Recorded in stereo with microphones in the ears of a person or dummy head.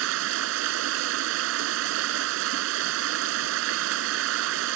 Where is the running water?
70° right (ahead or behind).